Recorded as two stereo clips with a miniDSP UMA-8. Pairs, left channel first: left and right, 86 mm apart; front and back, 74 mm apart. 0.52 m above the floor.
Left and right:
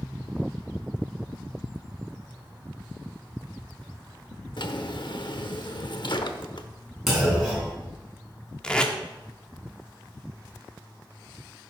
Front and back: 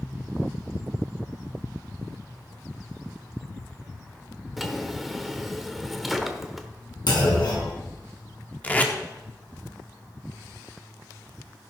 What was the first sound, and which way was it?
A drawer, 90° left.